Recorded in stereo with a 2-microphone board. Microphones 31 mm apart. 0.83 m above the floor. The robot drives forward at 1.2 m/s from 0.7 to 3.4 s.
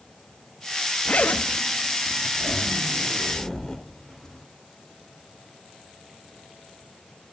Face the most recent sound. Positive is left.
turn(degrees=20)  # may be behind; listen again after turning